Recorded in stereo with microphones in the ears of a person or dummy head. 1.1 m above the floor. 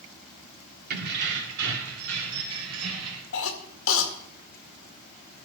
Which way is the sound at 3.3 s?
70° left (ahead or behind).